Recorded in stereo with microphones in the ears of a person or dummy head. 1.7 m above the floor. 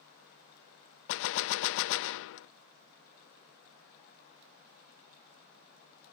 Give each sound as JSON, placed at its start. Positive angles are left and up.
{"t": 1.1, "sound": "a gunshot", "side_deg": 70}